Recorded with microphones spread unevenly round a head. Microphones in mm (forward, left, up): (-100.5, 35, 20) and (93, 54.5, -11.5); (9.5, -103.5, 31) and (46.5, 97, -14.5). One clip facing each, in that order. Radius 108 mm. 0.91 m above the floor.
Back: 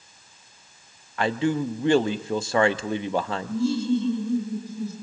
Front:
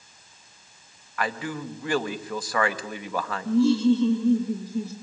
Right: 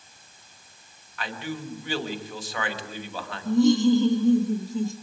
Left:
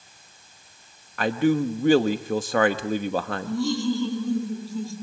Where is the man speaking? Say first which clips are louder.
Back 7 dB, left 13 dB; 115° left, 1.1 m.